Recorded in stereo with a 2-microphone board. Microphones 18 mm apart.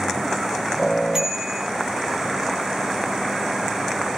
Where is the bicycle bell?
35° right (ahead or behind), 3.5 m.